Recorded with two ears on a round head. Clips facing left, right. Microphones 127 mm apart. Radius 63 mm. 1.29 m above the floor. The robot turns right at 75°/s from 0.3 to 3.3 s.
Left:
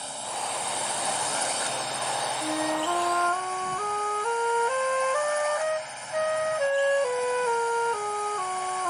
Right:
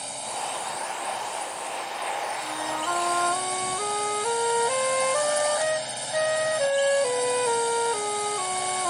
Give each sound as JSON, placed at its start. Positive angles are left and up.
{"t": 0.0, "sound": "a drone", "azimuth_deg": -5}
{"t": 2.4, "sound": "a flute", "azimuth_deg": 120}